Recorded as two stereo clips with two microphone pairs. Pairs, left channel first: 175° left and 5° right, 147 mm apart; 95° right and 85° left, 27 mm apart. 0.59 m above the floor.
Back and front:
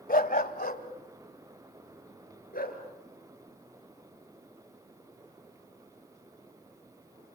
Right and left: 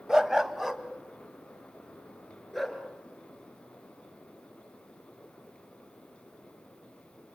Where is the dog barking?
155° left, 0.9 m; by 2.8 s straight behind, 3.5 m.